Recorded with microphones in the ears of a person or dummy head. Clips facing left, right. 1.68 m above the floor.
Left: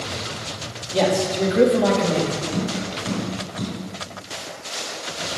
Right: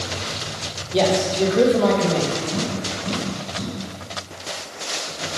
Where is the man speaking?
Centre (ahead or behind), 1.1 m.